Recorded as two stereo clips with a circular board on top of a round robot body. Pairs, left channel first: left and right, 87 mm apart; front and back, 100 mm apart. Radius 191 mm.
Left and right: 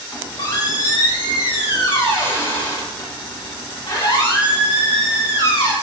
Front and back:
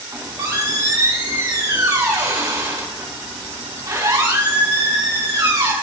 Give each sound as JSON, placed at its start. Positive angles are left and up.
{"t": 0.1, "sound": "a squeak", "azimuth_deg": 125, "distance_m": 3.0}